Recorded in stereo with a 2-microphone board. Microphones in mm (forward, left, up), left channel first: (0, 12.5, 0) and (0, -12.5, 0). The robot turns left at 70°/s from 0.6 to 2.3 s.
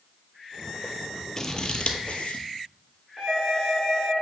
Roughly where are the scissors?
Left.